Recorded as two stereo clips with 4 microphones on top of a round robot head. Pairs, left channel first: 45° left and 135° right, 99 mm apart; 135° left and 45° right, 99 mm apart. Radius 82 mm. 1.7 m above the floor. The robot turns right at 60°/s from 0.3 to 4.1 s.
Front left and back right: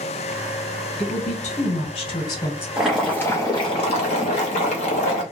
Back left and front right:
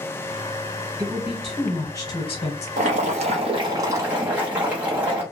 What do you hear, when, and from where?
1.0 s a woman speaking: 15° left, 0.8 m; by 2.7 s 115° left, 0.8 m
2.8 s boiling: 50° right, 0.7 m; by 5.2 s 30° left, 0.7 m